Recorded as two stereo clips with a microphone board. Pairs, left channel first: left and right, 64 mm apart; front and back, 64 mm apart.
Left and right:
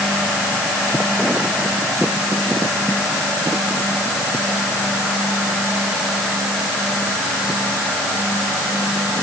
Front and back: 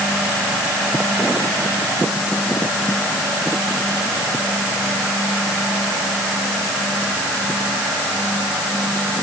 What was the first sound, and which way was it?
Only background noise.